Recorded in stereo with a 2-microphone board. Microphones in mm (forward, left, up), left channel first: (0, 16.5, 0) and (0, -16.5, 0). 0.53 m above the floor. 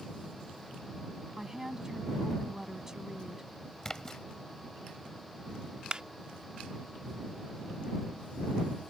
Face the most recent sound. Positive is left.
turn(degrees=-30)  # may be behind; listen again after turning